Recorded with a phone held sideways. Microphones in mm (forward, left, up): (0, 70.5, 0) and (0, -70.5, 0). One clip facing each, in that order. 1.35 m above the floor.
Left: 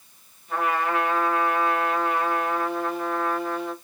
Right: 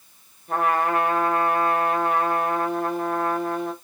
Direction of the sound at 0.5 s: 50° right (ahead or behind).